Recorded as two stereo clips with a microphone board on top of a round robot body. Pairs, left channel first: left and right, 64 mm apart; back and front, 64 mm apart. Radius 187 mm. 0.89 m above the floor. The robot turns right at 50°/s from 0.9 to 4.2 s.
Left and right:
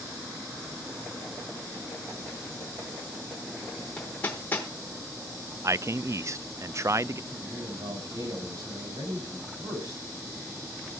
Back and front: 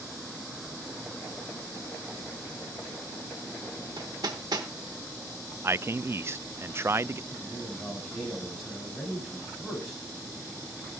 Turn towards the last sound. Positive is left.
turn(degrees=-95)